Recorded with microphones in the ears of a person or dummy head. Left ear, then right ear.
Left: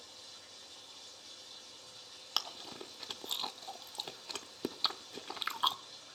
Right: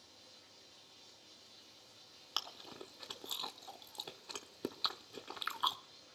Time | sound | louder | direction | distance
0.0 | running water | left 8 dB | 45° left (ahead or behind) | 2 m
2.4 | chewing | left 4 dB | 10° left (ahead or behind) | 0.6 m